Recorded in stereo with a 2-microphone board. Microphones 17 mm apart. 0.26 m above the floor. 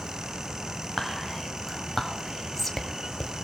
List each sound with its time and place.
1.0 s whispering: 5° left (ahead or behind), 1.2 m